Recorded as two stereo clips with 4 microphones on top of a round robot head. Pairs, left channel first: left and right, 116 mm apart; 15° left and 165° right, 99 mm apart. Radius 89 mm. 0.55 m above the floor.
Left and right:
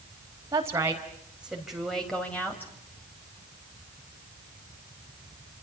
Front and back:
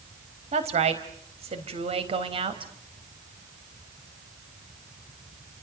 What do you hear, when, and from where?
0.5 s a woman speaking: 155° right, 4 m; by 2.7 s 165° left, 4 m